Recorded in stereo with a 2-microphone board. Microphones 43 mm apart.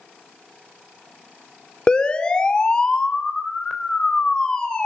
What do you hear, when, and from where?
1.9 s a siren: 25° left (ahead or behind), 2.5 m; by 4.9 s 20° left (ahead or behind), 4.5 m